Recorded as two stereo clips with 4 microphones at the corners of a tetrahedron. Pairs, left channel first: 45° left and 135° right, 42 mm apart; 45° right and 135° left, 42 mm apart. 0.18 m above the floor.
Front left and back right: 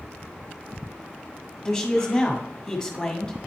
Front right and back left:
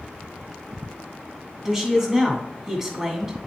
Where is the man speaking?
85° left, 1.3 m.